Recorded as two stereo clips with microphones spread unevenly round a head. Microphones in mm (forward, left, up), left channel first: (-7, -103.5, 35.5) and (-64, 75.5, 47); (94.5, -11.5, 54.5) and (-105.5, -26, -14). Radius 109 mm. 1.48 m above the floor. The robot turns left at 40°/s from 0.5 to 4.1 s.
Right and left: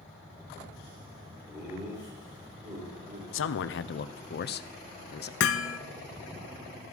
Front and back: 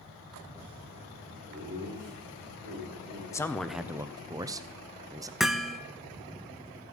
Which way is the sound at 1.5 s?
150° right.